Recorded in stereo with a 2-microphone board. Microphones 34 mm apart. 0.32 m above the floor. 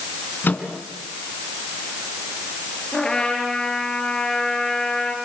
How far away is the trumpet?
About 6 m.